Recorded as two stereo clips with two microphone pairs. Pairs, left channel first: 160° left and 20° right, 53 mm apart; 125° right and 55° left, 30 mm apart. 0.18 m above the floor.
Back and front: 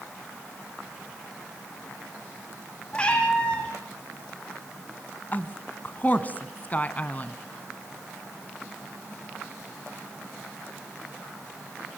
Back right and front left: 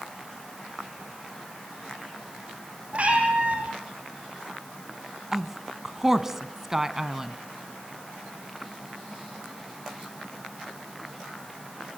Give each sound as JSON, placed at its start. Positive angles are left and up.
{"t": 2.9, "sound": "a cat meowing", "azimuth_deg": 90, "distance_m": 3.5}
{"t": 5.3, "sound": "a woman speaking", "azimuth_deg": 125, "distance_m": 1.3}